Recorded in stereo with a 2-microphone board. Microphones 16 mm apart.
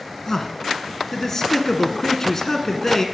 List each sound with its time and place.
0.3 s a man speaking: 25° left (ahead or behind), 1.3 m